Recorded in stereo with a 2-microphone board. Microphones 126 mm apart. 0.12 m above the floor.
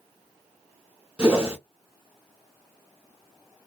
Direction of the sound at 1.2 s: 10° right (ahead or behind).